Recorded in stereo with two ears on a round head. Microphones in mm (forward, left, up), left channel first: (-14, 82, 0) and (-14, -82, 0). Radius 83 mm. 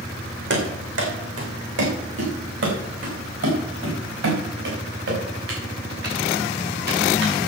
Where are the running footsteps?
70° right (ahead or behind), 4 m; by 7.3 s 75° right (ahead or behind), 8 m.